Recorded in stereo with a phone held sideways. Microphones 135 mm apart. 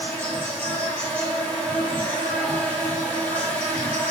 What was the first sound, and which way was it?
An insect, 10° left (ahead or behind).